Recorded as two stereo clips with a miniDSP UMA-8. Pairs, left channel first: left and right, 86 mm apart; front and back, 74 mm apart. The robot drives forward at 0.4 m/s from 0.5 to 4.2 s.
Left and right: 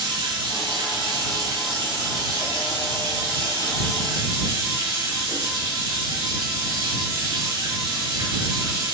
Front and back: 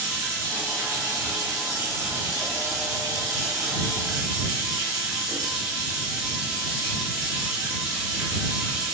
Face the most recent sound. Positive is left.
turn(degrees=-140)